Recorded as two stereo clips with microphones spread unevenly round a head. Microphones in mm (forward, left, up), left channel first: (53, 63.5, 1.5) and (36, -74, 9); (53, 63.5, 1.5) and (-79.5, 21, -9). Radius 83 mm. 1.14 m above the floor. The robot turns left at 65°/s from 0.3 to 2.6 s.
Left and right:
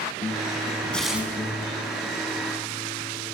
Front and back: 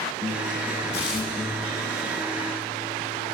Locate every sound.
0.9 s tearing paper: straight ahead, 8 m; by 1.3 s 25° right, 8 m